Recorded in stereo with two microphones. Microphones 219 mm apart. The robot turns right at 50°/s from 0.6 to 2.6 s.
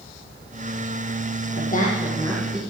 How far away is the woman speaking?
About 5.5 m.